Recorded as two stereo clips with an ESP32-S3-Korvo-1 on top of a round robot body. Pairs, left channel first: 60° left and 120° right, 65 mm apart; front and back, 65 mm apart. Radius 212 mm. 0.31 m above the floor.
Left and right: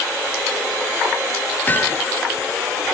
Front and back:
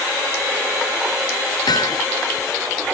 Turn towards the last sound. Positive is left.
turn(degrees=-5)